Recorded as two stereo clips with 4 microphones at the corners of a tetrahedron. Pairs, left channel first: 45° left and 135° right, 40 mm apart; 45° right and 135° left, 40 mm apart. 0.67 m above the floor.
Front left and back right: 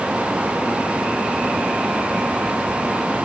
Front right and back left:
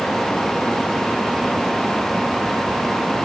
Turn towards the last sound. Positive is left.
No sound to turn to.